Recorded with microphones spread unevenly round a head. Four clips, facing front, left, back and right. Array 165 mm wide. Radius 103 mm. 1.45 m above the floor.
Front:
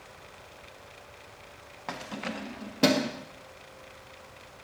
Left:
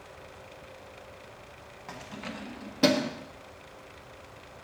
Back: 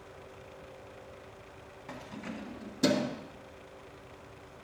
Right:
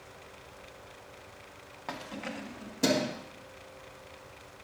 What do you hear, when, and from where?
1.9 s keys jangling: 25° right, 0.9 m; by 3.1 s 30° left, 1.6 m